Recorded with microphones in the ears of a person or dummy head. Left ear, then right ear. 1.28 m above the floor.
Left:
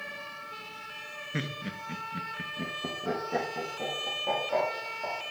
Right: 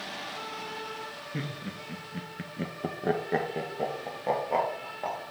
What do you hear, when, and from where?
1.3 s laughter: 40° left (ahead or behind), 0.8 m; by 5.2 s 75° right (ahead or behind), 2.0 m